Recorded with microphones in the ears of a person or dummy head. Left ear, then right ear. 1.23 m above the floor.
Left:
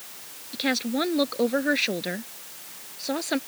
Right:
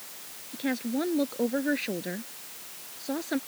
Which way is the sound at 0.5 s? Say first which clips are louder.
Left 5 dB; 40° left (ahead or behind).